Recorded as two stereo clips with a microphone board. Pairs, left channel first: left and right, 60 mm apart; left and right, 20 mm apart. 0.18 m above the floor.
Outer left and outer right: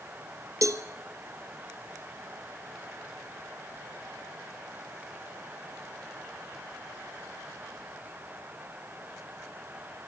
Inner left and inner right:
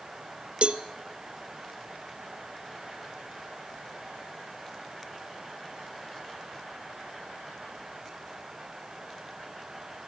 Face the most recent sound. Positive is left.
turn(degrees=-60)  # may be behind; listen again after turning